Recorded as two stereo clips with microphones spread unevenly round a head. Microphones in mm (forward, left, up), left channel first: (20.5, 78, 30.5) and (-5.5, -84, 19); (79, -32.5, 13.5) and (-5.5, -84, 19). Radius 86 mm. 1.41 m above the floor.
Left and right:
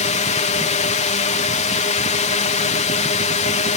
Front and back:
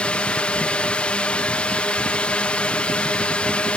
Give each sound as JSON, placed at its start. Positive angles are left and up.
{"t": 0.0, "sound": "a drone", "azimuth_deg": 105}